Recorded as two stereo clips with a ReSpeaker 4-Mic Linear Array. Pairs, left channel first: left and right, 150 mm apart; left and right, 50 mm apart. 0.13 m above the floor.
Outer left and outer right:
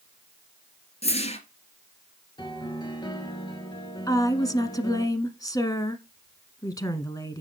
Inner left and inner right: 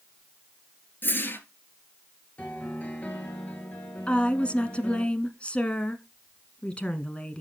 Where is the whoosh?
45° left (ahead or behind), 2.5 m.